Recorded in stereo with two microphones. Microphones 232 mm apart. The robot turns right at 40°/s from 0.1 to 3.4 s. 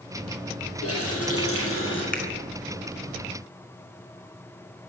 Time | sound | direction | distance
0.8 | a running tap | 75° left | 6 m
2.1 | a finger snap | 35° left (ahead or behind) | 4 m